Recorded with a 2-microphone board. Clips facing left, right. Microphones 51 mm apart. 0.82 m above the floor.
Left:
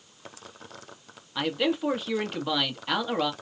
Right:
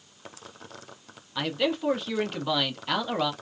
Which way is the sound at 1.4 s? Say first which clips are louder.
Left 1 dB; 5° left (ahead or behind).